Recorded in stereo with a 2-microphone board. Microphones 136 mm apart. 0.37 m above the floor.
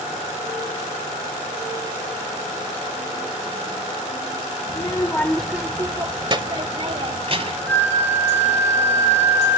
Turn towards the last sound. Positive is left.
turn(degrees=15)  # may be behind; listen again after turning